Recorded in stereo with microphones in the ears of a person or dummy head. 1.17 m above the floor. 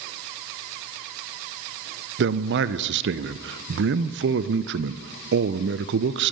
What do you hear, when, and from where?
2.2 s a man speaking: 55° right (ahead or behind), 0.6 m